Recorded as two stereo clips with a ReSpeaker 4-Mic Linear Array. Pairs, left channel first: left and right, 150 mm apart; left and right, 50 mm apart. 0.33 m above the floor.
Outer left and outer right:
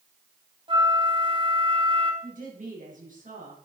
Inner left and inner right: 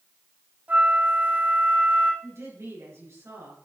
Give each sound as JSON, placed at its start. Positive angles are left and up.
{"t": 0.7, "sound": "a flute", "side_deg": -35, "distance_m": 1.2}
{"t": 2.2, "sound": "a woman speaking", "side_deg": -65, "distance_m": 4.5}